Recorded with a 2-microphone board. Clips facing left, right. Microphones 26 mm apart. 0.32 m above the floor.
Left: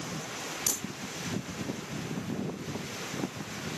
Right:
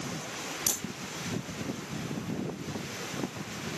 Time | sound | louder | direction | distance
0.7 | a crack | right 1 dB | 40° right (ahead or behind) | 3 m